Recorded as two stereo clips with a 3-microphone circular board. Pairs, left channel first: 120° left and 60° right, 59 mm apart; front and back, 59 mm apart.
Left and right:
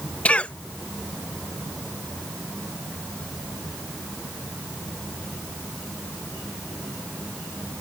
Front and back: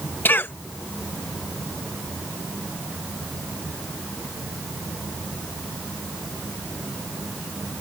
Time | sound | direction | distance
0.2 | a cough | 50° left | ?